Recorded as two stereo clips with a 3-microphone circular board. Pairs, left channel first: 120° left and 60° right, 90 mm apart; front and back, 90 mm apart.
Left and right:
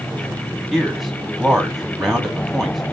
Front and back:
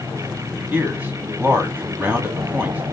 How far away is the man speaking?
About 1.4 m.